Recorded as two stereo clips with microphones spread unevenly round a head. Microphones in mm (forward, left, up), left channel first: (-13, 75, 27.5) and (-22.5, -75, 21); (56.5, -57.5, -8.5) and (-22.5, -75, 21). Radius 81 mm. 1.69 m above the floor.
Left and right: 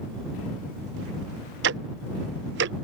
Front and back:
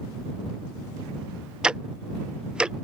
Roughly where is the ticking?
Right.